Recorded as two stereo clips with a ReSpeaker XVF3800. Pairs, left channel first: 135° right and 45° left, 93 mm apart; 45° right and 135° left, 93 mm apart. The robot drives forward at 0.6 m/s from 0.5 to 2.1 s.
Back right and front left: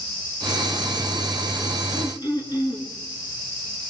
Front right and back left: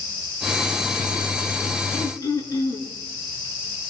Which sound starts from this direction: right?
Throat clearing, at 1.9 s.